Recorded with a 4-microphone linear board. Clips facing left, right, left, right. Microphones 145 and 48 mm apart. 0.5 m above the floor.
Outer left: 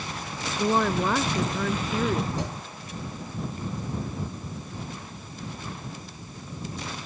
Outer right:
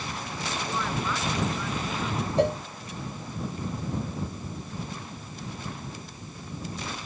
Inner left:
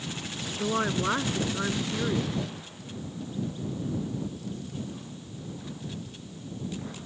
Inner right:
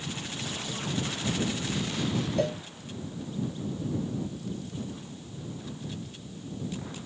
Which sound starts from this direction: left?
A woman speaking, at 0.6 s.